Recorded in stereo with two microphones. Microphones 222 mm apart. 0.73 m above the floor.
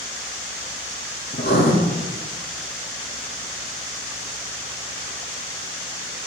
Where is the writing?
50° left (ahead or behind), 3.5 m.